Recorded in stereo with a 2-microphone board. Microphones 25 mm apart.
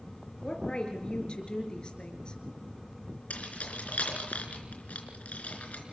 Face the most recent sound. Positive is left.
turn(degrees=70)  # may be behind; listen again after turning